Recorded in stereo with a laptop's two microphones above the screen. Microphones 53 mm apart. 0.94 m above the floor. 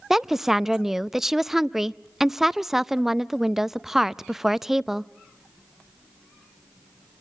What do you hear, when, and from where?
0.1 s a woman speaking: 5° right (ahead or behind), 0.5 m